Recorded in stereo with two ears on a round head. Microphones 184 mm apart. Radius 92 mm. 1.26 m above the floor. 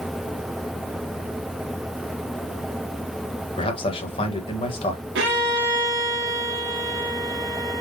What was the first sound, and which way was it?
A man speaking, 25° left (ahead or behind).